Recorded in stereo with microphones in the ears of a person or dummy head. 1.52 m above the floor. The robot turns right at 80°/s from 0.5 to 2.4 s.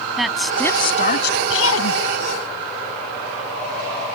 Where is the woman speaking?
Straight ahead; by 2.0 s 125° left.